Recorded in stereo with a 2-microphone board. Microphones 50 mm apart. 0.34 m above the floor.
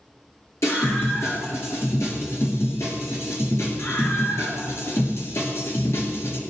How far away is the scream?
About 5.5 m.